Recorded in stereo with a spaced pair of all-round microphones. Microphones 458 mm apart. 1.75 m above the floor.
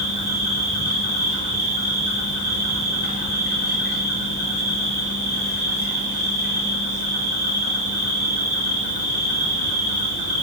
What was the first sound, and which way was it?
An insect, 50° left (ahead or behind).